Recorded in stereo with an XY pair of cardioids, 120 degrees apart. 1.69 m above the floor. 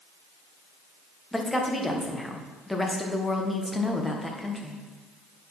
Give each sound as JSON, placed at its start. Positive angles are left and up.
{"t": 1.3, "sound": "a woman speaking", "azimuth_deg": 10, "distance_m": 1.6}